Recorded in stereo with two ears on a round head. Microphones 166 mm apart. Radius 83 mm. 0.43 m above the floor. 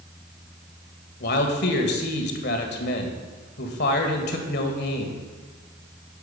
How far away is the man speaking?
About 1.8 m.